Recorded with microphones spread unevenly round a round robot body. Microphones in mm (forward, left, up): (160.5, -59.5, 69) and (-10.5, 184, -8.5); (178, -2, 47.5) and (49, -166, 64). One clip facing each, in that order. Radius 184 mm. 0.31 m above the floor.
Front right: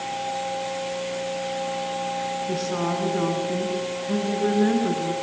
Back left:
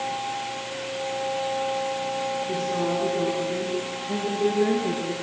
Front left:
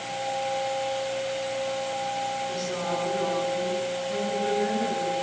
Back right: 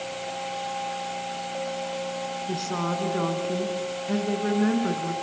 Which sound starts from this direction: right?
A woman speaking, at 2.5 s.